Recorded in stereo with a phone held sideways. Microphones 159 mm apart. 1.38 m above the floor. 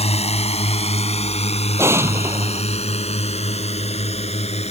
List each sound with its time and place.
0.0 s a drone: 45° left (ahead or behind)
1.8 s an explosion: 15° right (ahead or behind)